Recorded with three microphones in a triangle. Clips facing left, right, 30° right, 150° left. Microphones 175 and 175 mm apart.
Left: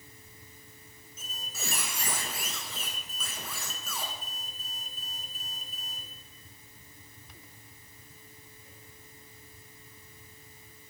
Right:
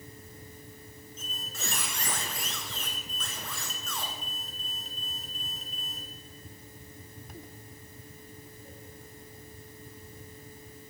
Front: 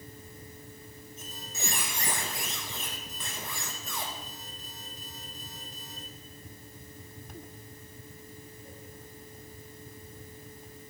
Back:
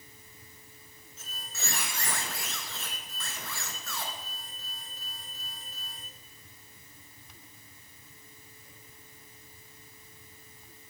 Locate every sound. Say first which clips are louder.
1.2 s a squeak: right 1 dB, front 4 dB; 15° left, 1.2 m